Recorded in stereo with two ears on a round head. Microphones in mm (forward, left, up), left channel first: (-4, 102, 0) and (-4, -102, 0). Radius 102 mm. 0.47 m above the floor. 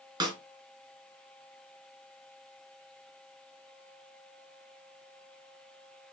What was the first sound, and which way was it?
A snare drum, 20° right (ahead or behind).